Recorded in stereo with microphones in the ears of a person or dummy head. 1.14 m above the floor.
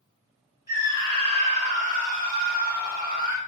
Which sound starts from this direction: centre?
A scream, at 0.7 s.